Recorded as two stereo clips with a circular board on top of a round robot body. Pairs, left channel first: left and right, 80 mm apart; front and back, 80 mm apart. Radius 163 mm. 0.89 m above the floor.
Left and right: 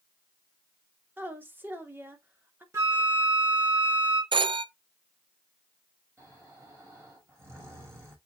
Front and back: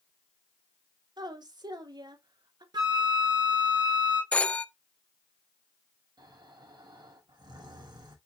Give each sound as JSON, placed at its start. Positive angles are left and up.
{"t": 1.2, "sound": "a woman speaking", "azimuth_deg": -155, "distance_m": 3.0}
{"t": 2.7, "sound": "a flute", "azimuth_deg": -145, "distance_m": 4.0}
{"t": 4.3, "sound": "a phone ringing", "azimuth_deg": -75, "distance_m": 0.7}
{"t": 6.2, "sound": "snoring", "azimuth_deg": -150, "distance_m": 6.5}